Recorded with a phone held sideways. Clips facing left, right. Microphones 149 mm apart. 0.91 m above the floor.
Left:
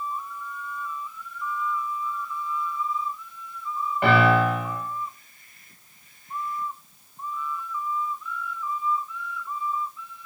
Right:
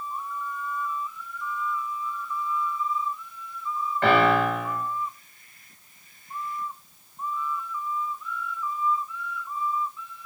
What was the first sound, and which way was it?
A piano, 15° left (ahead or behind).